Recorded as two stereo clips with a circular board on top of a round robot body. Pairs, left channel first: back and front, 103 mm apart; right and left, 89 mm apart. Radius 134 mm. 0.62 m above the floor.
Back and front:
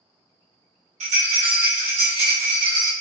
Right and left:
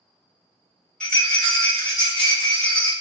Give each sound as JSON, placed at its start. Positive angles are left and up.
{"t": 1.0, "sound": "a rattle", "azimuth_deg": -10, "distance_m": 1.6}